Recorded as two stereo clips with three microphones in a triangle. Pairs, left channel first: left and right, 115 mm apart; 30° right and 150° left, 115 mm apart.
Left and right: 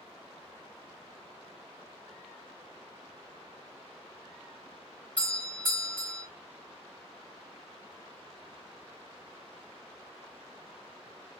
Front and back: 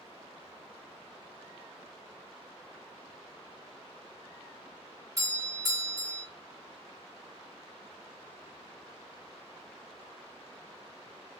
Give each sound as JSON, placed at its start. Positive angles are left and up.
{"t": 5.2, "sound": "a doorbell", "azimuth_deg": 155, "distance_m": 1.6}